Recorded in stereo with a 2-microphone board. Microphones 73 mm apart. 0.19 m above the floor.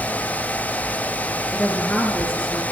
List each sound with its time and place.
1.5 s a woman speaking: centre (ahead or behind), 3 m; by 2.6 s 20° left (ahead or behind), 3 m